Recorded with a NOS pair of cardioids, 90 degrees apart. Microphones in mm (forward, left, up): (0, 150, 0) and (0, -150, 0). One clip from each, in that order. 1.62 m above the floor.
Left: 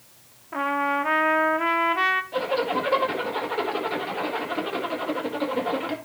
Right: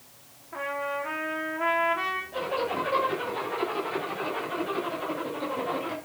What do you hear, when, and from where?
0.5 s a trumpet: 45° left, 1.5 m
2.3 s a zipper: 60° left, 5 m